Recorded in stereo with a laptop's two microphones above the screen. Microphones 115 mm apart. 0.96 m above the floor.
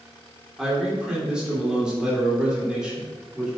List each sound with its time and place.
0.6 s a man speaking: 10° right (ahead or behind), 3 m